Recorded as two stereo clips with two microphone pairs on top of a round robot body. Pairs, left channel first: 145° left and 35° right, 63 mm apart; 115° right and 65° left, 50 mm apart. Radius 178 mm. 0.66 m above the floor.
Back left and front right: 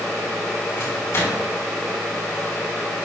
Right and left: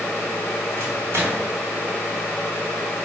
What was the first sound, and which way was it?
A microwave, 100° left.